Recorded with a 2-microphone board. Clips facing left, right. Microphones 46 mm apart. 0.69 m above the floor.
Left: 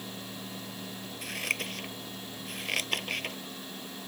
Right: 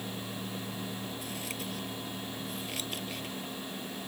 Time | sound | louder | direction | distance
1.2 | scissors | left 5 dB | 60° left (ahead or behind) | ?